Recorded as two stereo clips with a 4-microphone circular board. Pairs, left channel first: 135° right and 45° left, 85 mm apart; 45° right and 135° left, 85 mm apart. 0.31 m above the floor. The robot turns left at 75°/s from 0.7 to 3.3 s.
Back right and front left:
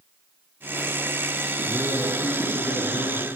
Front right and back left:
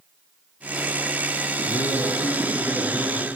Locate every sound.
1.6 s a man speaking: 45° right, 5 m; by 3.3 s 170° right, 5 m